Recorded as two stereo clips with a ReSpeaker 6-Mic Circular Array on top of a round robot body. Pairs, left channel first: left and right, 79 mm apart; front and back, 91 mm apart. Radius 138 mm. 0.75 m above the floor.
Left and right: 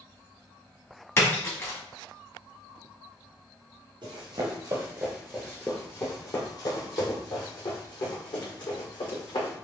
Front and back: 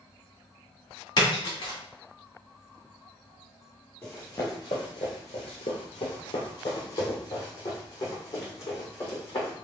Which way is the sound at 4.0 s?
75° right.